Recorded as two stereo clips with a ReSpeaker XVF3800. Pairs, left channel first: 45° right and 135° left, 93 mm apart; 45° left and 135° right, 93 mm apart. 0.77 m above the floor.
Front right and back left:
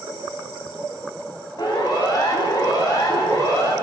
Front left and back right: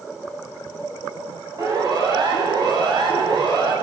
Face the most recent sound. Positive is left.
turn(degrees=-95)